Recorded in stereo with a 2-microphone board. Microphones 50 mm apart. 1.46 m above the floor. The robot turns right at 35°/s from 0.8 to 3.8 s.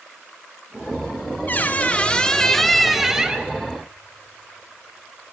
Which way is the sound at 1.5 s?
135° left.